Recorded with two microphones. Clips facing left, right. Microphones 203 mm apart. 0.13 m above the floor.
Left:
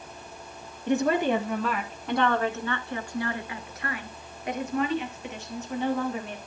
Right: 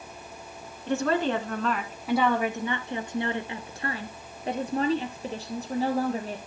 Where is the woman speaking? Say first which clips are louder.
Left 2 dB; 20° left (ahead or behind), 1.4 m; by 6.4 s 35° right (ahead or behind), 3.5 m.